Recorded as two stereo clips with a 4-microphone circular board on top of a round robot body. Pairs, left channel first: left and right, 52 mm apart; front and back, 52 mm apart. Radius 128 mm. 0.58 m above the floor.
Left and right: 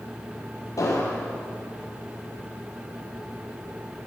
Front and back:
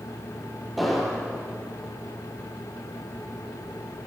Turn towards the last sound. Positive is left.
turn(degrees=90)